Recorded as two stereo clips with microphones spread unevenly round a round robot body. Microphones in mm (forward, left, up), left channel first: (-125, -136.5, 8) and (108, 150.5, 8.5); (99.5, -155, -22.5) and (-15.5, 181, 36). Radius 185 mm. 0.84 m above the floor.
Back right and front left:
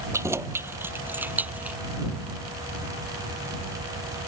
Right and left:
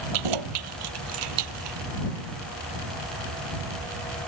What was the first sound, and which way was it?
Keys jangling, 135° left.